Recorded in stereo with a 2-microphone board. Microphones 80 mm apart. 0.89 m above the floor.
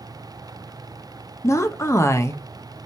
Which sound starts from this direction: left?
A woman speaking, at 1.4 s.